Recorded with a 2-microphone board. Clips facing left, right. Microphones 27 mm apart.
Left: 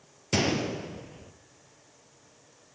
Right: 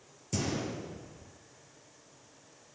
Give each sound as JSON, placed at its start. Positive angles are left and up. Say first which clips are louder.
{"t": 0.3, "sound": "a gunshot", "louder": "left 7 dB", "side_deg": 55, "distance_m": 2.5}